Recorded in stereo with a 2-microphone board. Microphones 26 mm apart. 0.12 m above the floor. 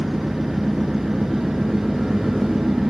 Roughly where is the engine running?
Centre.